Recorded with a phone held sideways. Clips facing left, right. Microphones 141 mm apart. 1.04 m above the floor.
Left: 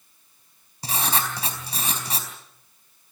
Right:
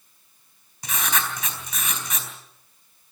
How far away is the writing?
About 4 m.